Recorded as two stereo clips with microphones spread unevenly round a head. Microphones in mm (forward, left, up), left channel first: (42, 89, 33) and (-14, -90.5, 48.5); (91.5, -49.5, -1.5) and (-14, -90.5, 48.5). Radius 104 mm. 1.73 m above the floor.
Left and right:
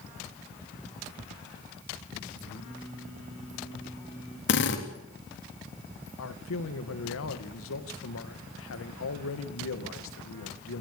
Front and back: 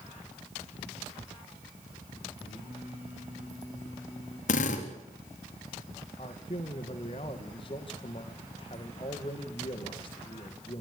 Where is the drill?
45° left, 3.5 m.